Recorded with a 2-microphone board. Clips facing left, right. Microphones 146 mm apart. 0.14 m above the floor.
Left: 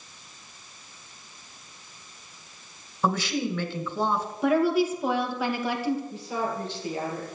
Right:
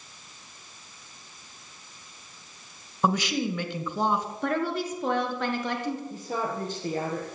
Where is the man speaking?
10° right (ahead or behind), 1.7 m.